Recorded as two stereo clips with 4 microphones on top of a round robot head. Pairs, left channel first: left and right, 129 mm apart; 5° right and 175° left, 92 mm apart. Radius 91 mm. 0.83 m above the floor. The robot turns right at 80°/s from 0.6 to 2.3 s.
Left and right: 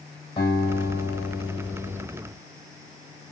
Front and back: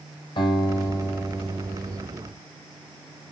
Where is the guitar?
25° left, 4.5 m; by 2.0 s 140° left, 4.5 m.